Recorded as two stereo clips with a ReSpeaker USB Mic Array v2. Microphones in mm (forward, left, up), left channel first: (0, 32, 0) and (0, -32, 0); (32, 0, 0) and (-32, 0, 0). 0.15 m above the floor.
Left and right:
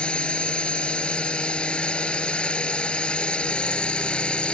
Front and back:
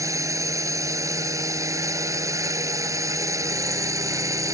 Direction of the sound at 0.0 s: 165° left.